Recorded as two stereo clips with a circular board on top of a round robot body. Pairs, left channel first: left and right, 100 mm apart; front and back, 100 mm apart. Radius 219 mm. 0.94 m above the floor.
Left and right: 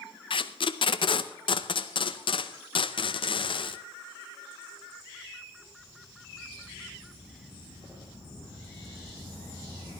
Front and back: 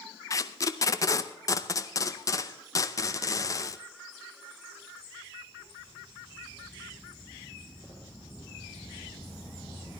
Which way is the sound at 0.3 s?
55° left.